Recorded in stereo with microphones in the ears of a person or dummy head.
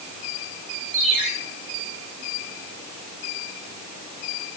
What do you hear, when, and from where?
0.9 s a ringtone: 75° right (ahead or behind), 8.5 m